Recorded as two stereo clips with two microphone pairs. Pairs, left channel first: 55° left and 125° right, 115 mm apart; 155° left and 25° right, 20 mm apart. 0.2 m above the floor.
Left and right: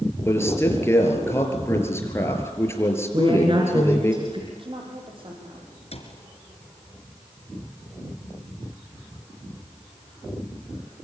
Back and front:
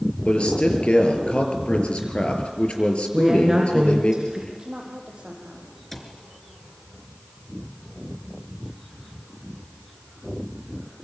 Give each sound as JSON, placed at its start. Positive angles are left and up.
{"t": 0.2, "sound": "a man speaking", "azimuth_deg": 125, "distance_m": 5.0}
{"t": 3.1, "sound": "a woman speaking", "azimuth_deg": -90, "distance_m": 3.5}
{"t": 4.5, "sound": "a woman speaking", "azimuth_deg": -85, "distance_m": 7.0}
{"t": 5.9, "sound": "a cupboard door", "azimuth_deg": 75, "distance_m": 3.5}